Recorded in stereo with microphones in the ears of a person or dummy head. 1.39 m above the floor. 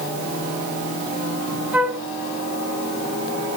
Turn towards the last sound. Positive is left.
turn(degrees=-10)  # may be behind; listen again after turning